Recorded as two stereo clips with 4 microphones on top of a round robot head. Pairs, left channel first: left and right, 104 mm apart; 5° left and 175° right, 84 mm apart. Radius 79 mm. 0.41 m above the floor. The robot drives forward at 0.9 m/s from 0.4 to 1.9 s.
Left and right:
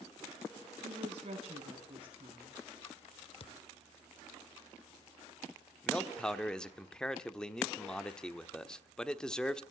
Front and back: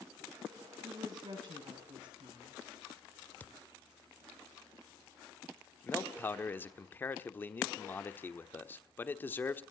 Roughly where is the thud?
Left.